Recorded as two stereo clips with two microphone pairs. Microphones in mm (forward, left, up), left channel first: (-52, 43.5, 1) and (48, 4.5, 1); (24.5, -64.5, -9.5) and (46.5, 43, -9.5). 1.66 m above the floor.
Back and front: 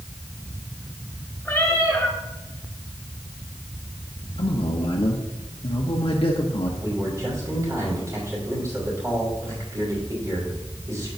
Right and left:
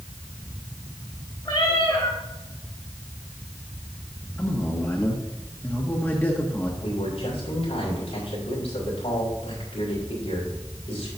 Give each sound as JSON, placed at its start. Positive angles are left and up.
{"t": 1.4, "sound": "a cat meowing", "azimuth_deg": -135, "distance_m": 2.0}
{"t": 4.4, "sound": "a man speaking", "azimuth_deg": -170, "distance_m": 1.0}
{"t": 6.8, "sound": "a man speaking", "azimuth_deg": -80, "distance_m": 4.5}